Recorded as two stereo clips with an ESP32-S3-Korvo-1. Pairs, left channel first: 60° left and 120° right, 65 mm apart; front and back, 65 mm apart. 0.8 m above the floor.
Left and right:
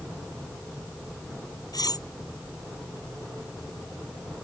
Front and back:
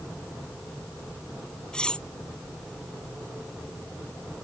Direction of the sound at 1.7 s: 75° left.